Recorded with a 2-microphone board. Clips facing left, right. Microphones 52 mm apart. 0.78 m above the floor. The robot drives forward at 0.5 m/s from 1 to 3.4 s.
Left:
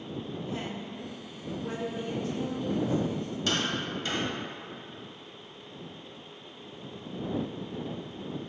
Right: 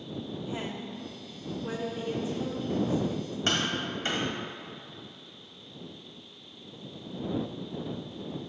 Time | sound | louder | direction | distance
0.5 | a woman speaking | even | 10° right (ahead or behind) | 0.6 m
3.5 | tapping | right 1 dB | 40° right (ahead or behind) | 1.5 m